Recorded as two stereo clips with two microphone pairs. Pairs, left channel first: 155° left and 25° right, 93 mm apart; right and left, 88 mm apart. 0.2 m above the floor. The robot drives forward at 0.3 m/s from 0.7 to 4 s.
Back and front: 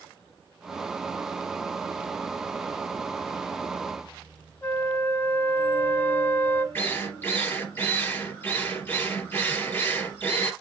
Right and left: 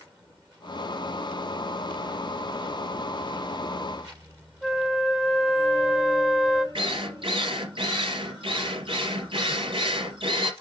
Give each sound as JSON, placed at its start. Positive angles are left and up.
{"t": 4.6, "sound": "a flute", "azimuth_deg": 155, "distance_m": 0.6}
{"t": 6.8, "sound": "a drill", "azimuth_deg": 90, "distance_m": 2.5}